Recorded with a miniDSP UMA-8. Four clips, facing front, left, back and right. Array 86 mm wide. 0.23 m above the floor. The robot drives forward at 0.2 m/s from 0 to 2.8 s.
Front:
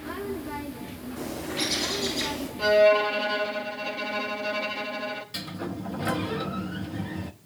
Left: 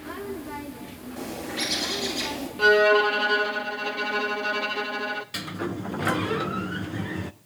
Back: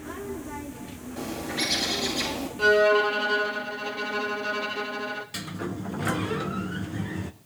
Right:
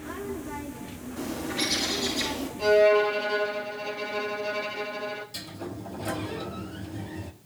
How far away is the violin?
About 1.6 m.